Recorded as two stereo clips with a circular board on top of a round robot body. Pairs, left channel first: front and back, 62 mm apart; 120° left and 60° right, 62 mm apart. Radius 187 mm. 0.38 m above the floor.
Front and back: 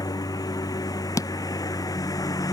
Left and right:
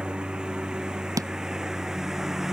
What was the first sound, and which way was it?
A lawn mower, 15° left.